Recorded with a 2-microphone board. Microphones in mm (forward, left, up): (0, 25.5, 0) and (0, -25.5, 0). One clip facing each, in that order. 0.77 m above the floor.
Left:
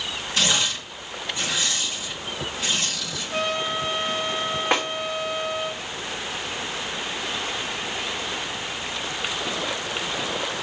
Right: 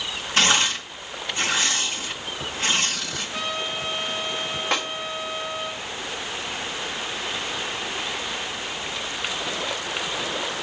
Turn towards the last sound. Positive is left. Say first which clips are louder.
# left 3 dB
turn(degrees=15)  # may be behind; listen again after turning